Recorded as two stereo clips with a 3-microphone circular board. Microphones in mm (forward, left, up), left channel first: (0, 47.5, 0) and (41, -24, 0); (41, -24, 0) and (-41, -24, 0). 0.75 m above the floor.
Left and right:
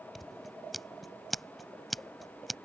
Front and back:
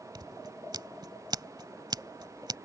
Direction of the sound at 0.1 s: 150° right.